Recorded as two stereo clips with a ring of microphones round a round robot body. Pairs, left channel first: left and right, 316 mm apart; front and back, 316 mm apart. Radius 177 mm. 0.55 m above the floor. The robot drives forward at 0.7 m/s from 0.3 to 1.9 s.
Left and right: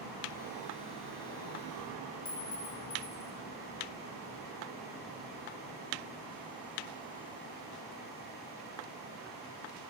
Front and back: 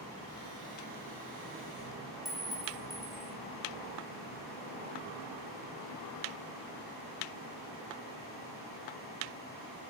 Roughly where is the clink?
Left.